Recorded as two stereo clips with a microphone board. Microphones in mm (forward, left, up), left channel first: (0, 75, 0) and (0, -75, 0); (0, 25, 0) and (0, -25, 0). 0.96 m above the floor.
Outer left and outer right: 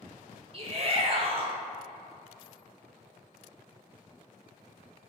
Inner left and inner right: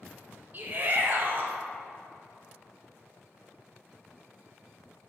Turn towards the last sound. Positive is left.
turn(degrees=-40)  # may be behind; listen again after turning